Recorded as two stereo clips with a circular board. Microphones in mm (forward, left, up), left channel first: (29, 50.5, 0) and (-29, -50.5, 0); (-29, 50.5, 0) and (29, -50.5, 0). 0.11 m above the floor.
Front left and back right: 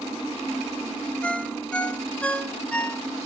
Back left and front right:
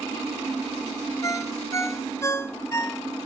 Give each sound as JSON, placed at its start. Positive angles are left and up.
{"t": 1.2, "sound": "a ringtone", "azimuth_deg": 125, "distance_m": 1.0}